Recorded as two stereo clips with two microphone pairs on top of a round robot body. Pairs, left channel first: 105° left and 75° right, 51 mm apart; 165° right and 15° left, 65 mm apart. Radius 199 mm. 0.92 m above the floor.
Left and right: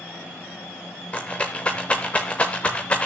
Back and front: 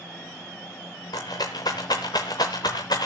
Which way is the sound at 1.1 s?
160° right.